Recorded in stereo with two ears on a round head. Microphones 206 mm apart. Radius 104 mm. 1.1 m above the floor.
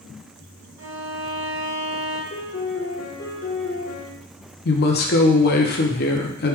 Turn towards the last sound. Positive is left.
turn(degrees=45)  # may be behind; listen again after turning